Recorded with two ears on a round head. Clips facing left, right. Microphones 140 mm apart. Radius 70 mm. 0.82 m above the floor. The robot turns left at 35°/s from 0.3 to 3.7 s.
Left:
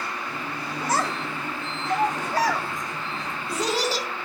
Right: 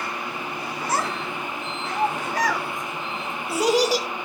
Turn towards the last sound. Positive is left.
turn(degrees=-10)  # may be behind; listen again after turning